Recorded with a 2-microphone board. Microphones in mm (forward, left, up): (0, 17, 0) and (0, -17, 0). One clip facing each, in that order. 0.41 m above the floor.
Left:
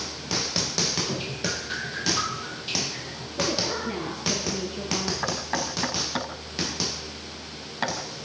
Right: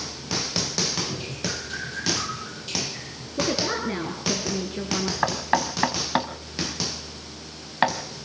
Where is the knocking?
35° right (ahead or behind), 3 m.